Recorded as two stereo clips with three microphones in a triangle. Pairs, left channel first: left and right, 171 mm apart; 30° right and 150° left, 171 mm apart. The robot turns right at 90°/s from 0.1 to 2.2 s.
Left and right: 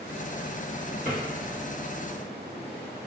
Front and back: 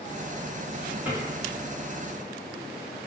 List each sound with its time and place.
1.1 s a drawer: 75° left, 1.2 m; by 1.2 s 85° left, 1.2 m